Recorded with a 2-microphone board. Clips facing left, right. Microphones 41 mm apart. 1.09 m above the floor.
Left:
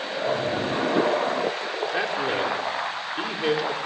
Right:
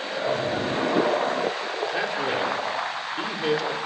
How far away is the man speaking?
About 3.5 m.